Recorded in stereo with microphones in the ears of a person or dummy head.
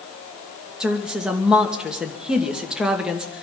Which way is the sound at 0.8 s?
5° right (ahead or behind).